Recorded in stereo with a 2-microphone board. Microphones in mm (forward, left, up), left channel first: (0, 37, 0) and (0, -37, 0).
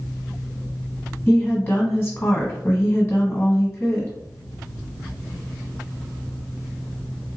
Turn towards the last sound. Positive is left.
turn(degrees=30)  # may be behind; listen again after turning